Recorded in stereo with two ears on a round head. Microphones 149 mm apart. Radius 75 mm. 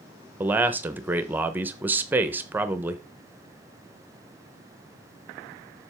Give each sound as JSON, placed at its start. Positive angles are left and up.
{"t": 0.4, "sound": "a man speaking", "side_deg": -10, "distance_m": 0.7}